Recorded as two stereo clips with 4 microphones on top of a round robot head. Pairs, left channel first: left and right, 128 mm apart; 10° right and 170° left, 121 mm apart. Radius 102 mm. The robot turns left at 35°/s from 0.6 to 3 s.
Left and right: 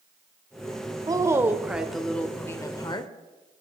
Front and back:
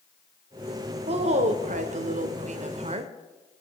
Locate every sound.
1.1 s a woman speaking: 150° right, 1.8 m; by 3.1 s 145° left, 1.8 m